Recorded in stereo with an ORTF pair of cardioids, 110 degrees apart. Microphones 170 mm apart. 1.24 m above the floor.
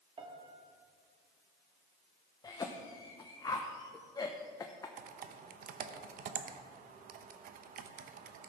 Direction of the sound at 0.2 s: 35° right.